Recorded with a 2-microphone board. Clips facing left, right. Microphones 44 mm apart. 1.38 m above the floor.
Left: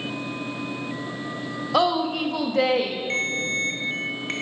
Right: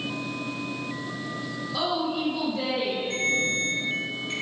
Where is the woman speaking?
75° left (ahead or behind), 0.9 m.